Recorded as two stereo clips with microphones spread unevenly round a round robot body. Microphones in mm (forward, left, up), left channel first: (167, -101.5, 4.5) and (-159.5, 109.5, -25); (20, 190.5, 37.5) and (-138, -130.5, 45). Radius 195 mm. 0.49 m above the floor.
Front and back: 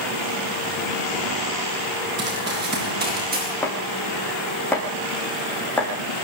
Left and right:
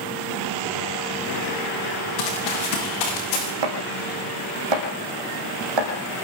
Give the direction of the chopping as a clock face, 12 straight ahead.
4 o'clock.